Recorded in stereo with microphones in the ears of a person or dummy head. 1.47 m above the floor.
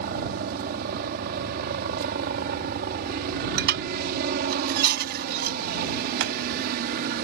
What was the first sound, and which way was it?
A helicopter, 50° right (ahead or behind).